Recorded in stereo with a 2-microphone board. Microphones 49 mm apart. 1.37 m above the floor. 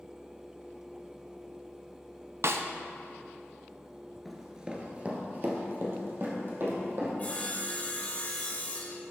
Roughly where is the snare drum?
Right.